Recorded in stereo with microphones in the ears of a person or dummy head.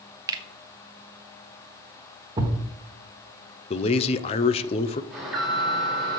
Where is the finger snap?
20° right (ahead or behind), 0.6 m.